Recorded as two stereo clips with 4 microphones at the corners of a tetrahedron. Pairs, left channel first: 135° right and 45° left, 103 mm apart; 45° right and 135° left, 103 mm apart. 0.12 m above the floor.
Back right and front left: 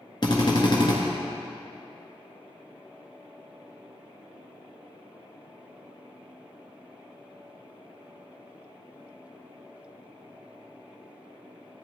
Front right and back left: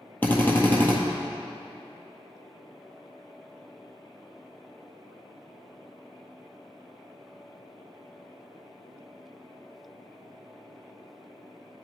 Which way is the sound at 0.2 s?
110° right.